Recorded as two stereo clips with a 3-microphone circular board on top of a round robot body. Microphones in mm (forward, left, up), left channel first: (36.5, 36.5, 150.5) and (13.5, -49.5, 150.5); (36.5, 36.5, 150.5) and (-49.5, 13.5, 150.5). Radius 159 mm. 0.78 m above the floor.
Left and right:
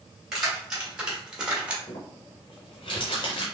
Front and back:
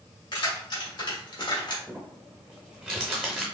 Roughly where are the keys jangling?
Ahead.